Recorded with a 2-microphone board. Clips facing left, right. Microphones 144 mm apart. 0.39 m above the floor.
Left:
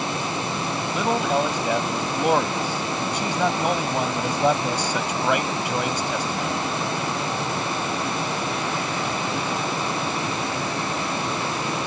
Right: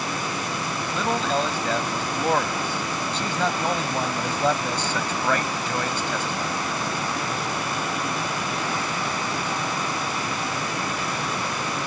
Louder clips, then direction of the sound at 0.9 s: Left 2 dB; 10° left (ahead or behind).